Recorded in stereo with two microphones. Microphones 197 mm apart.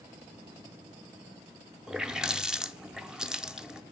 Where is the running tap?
5° right (ahead or behind), 0.5 m.